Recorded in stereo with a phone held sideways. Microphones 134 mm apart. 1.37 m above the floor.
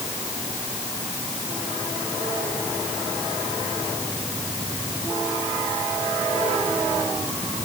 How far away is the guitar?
I don't hear a guitar.